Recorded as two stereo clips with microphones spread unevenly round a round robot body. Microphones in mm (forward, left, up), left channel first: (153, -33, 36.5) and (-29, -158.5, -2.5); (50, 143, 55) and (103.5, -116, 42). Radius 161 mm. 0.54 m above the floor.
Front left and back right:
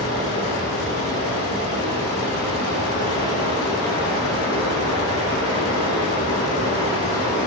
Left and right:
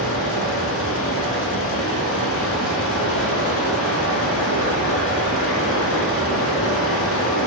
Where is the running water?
65° left, 4 m.